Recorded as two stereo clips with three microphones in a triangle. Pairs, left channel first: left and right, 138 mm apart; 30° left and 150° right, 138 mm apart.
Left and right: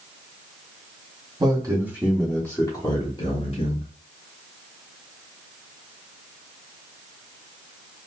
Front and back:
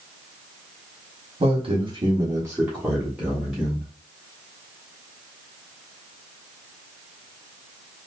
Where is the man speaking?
135° right, 1.2 m; by 3.9 s 105° left, 1.6 m.